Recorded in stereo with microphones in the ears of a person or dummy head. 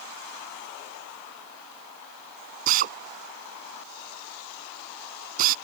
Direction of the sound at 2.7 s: 45° right (ahead or behind).